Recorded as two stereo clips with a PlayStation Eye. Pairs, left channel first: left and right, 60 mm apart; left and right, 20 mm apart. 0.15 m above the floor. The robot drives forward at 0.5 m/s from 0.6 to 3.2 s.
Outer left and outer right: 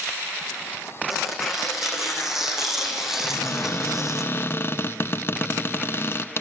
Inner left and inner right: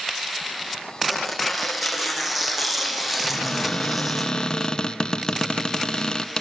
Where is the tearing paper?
5° right (ahead or behind), 4.5 m.